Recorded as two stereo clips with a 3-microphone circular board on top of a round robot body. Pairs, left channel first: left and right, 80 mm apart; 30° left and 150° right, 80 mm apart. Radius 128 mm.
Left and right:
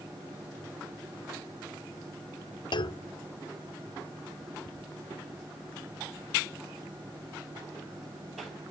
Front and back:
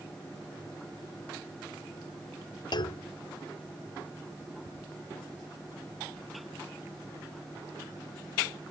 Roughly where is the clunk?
Ahead left.